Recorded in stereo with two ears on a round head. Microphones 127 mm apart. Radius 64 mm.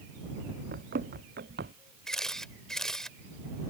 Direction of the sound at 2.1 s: 5° left (ahead or behind).